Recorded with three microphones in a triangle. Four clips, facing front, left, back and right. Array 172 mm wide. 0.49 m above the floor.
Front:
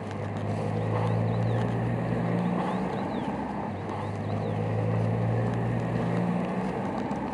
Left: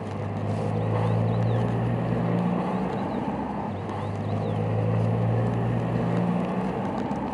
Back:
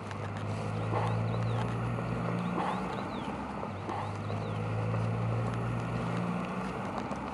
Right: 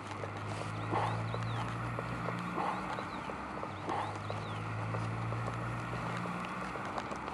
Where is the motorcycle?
65° left.